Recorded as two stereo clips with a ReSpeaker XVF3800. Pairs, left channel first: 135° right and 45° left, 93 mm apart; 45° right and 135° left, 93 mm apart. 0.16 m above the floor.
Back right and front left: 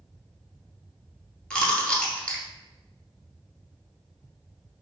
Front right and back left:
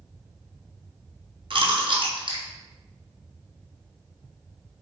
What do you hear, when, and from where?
1.5 s chewing: 145° left, 0.8 m